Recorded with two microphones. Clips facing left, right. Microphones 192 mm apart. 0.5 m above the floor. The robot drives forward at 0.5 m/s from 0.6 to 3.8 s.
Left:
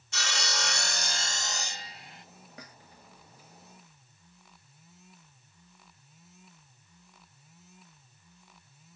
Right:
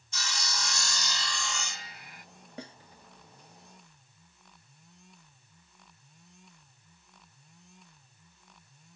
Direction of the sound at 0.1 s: 70° left (ahead or behind).